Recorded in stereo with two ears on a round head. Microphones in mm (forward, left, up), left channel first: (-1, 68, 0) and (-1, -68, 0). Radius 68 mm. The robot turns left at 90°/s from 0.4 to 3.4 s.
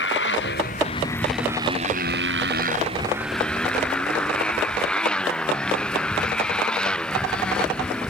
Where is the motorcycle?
85° left; by 8.1 s 175° left.